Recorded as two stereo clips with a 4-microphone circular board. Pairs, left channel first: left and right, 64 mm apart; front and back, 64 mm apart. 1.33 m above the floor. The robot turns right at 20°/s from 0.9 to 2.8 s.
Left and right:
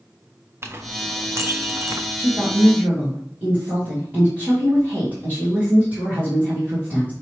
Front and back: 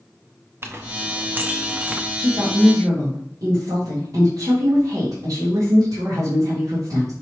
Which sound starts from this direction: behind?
A woman speaking, at 2.1 s.